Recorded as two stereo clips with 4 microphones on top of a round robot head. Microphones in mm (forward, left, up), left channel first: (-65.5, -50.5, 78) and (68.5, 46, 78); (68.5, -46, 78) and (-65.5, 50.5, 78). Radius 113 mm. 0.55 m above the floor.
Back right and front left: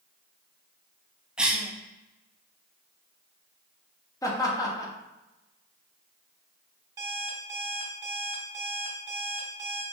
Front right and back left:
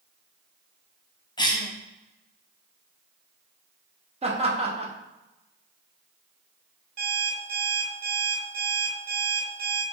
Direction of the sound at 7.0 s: 105° left.